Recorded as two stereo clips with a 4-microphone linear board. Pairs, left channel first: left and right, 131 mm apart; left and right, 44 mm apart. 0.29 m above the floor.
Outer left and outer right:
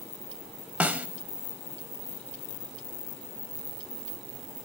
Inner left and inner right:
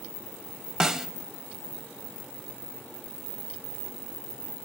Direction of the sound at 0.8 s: 10° right (ahead or behind).